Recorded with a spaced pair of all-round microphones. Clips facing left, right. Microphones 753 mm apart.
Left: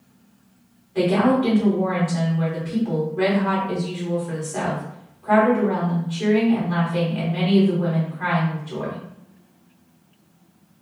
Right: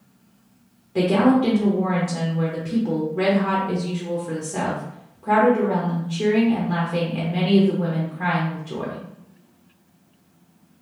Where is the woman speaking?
60° right (ahead or behind), 0.9 m.